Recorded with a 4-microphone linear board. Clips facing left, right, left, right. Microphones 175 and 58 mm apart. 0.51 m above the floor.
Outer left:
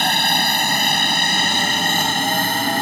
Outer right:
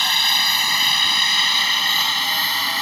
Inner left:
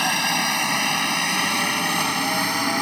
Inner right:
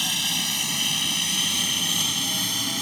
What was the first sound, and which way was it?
A helicopter, 50° left (ahead or behind).